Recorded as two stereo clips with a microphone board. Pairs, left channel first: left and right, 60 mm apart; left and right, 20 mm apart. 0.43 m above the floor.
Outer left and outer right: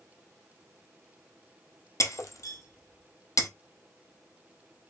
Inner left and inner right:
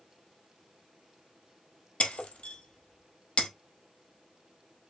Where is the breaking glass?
60° left (ahead or behind), 0.9 m.